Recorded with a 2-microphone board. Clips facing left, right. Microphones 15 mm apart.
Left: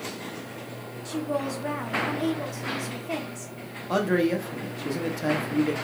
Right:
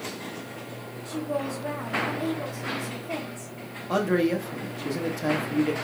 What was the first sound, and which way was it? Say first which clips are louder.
A woman speaking: left 1 dB; 60° left (ahead or behind).